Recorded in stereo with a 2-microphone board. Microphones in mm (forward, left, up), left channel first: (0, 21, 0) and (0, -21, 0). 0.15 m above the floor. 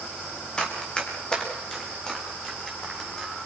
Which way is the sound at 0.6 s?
20° left (ahead or behind).